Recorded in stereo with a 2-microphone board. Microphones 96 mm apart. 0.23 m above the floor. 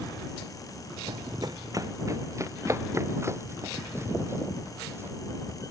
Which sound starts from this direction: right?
Running footsteps, at 1.1 s.